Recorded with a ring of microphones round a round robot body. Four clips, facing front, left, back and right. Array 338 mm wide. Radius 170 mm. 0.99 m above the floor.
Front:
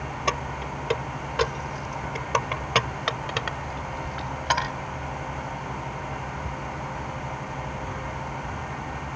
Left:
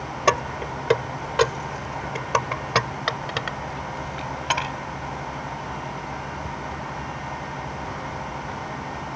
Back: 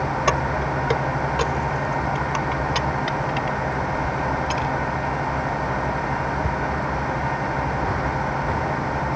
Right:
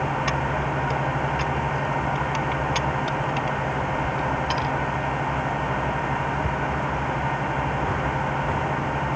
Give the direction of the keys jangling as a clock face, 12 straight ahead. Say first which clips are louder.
Left 2 dB, back 5 dB; 8 o'clock.